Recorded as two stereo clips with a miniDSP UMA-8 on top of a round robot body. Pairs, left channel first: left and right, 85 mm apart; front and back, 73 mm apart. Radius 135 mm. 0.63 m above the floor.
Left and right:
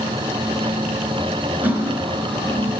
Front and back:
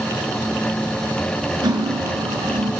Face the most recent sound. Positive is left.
turn(degrees=-160)